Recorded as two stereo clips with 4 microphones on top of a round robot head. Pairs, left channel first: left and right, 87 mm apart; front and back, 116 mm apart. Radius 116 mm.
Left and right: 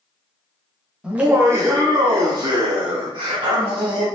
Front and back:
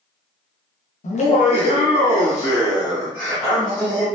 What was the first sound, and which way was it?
Laughter, 10° right.